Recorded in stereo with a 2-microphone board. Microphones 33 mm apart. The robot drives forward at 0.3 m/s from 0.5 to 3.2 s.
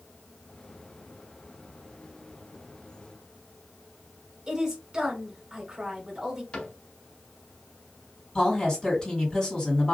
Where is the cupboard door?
30° left (ahead or behind), 1.0 m.